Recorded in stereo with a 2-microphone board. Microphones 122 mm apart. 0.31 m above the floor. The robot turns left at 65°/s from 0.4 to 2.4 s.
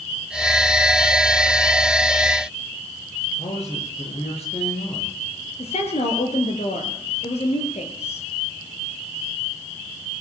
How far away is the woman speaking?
About 6 m.